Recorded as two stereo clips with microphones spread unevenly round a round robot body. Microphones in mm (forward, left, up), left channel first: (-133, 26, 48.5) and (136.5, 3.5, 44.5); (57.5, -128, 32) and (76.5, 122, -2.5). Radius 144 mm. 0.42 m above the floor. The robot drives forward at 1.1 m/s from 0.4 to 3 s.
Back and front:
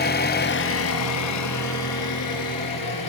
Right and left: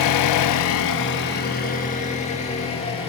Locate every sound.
0.0 s an engine running: 125° right, 1.1 m; by 3.1 s 165° right, 3.5 m